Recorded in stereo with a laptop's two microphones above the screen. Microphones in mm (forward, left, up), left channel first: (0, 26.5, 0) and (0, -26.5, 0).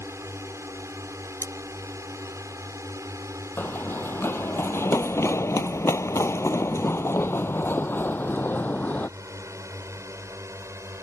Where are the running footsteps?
40° left (ahead or behind); by 9.1 s 30° left (ahead or behind).